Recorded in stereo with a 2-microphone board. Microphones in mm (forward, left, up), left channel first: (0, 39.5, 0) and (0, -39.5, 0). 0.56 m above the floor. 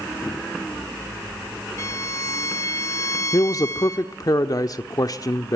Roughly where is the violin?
Left.